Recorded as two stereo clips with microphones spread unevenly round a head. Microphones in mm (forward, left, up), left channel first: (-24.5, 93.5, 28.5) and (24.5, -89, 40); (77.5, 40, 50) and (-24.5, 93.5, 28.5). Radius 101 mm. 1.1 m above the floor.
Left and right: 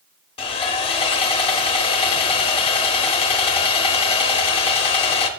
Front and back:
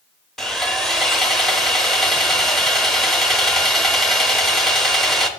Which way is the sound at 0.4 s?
50° left.